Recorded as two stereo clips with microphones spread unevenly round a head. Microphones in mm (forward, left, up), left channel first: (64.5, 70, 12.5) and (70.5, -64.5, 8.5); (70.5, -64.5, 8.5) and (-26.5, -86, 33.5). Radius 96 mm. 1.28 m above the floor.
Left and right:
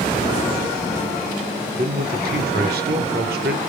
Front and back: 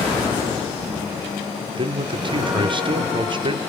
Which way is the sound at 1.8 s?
125° right.